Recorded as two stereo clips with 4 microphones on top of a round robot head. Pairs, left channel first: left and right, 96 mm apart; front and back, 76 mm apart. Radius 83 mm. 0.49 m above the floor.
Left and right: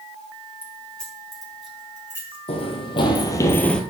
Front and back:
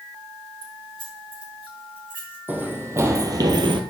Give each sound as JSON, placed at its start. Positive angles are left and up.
{"t": 0.6, "sound": "keys jangling", "azimuth_deg": 165, "distance_m": 4.5}
{"t": 2.5, "sound": "running footsteps", "azimuth_deg": 115, "distance_m": 1.6}